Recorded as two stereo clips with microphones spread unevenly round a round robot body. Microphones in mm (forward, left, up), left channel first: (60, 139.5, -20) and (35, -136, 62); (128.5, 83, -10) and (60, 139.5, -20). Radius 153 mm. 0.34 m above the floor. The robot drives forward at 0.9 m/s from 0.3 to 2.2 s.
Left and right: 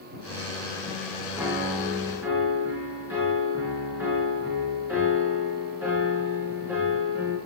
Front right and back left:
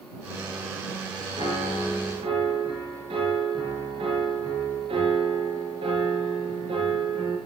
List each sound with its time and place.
1.4 s a piano: straight behind, 4 m